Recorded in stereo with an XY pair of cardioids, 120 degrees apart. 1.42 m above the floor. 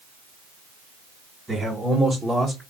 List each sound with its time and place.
1.5 s a man speaking: 20° right, 1.2 m; by 2.6 s 5° left, 0.9 m